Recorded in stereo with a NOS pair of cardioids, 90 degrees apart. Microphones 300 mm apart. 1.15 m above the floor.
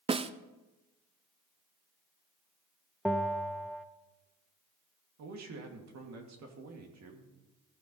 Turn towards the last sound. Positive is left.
turn(degrees=-65)